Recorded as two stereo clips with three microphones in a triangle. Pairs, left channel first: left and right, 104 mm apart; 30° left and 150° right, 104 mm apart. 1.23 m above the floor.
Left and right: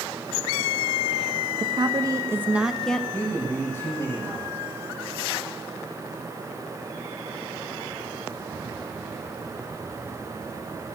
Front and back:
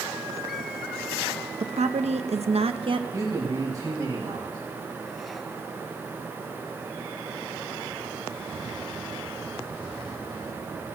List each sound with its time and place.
1.6 s a woman speaking: 135° right, 1.1 m; by 3.0 s 170° left, 0.8 m
3.1 s a man speaking: 155° left, 7 m